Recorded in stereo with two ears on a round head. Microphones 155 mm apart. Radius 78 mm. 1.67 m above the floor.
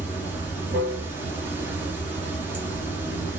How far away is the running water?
About 1.1 m.